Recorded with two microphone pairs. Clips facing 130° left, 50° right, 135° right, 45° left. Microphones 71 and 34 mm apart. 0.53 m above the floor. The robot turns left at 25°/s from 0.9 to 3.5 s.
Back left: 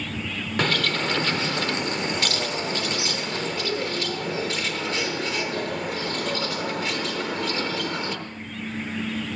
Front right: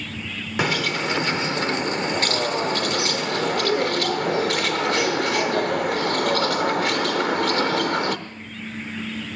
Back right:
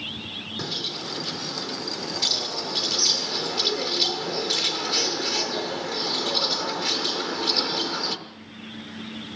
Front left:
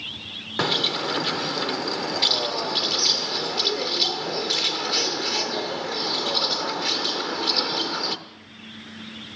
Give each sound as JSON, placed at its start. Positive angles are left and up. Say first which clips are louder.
{"t": 0.6, "sound": "a bird", "louder": "front right 1 dB, front left 10 dB", "azimuth_deg": 25, "distance_m": 0.7}